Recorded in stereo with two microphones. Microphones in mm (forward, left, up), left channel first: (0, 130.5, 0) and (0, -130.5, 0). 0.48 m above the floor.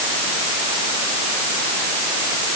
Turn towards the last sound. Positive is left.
No sound to turn to.